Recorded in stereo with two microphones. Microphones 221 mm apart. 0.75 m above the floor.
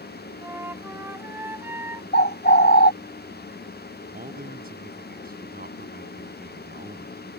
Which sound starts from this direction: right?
A man speaking, at 4.1 s.